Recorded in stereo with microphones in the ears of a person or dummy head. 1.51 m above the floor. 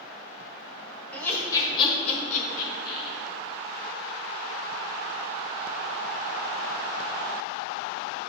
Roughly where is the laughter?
Centre.